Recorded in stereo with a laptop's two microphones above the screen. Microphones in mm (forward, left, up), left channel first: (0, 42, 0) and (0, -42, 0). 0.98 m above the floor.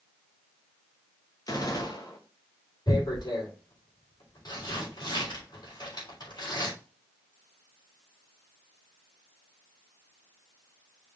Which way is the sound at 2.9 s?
55° left (ahead or behind).